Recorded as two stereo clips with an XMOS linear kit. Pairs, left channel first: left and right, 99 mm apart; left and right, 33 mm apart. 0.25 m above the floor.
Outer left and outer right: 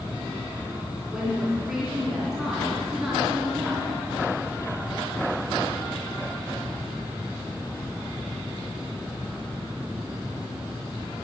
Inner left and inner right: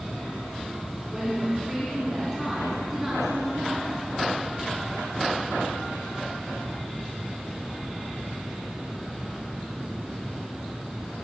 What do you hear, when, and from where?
1.1 s a woman speaking: 5° right (ahead or behind), 3 m